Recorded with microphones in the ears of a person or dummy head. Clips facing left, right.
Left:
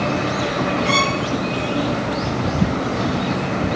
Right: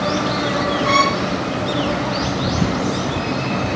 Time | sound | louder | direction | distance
0.8 | a violin | right 2 dB | 10° left (ahead or behind) | 5 m